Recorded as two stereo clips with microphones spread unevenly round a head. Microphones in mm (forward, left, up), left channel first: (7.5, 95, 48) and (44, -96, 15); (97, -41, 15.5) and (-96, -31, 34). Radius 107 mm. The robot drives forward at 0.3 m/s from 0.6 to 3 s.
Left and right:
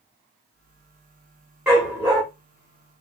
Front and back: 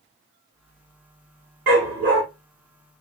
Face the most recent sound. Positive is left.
turn(degrees=-170)